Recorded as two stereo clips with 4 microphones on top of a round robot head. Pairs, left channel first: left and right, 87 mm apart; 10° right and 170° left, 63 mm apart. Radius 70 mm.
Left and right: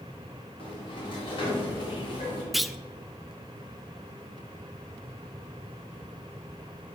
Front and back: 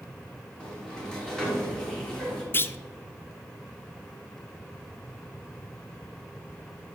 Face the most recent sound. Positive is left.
turn(degrees=0)